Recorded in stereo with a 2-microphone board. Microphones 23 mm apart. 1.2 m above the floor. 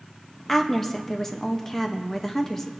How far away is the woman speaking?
About 1.2 m.